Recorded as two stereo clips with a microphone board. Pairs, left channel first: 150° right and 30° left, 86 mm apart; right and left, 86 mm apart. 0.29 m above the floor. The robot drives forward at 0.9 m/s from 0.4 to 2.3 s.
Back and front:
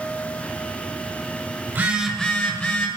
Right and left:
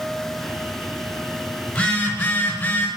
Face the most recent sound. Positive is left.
turn(degrees=-125)